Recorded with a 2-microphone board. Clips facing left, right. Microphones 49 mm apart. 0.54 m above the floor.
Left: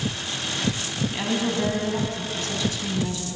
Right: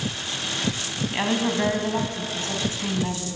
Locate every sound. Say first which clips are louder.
1.1 s a woman speaking: right 3 dB; 30° right (ahead or behind), 3.5 m